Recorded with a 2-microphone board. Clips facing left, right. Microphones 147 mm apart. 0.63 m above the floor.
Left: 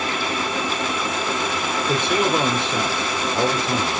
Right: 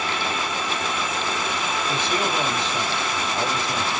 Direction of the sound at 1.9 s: 60° left (ahead or behind).